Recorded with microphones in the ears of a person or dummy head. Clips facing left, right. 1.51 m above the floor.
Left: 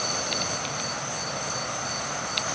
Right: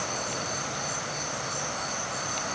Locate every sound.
Only background noise.